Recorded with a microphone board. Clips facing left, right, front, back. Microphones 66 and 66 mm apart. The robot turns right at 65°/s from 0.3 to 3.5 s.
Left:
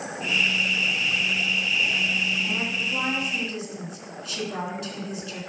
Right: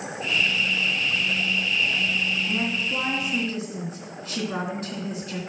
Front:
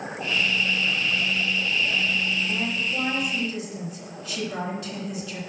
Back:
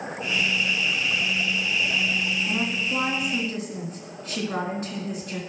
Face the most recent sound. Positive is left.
turn(degrees=-135)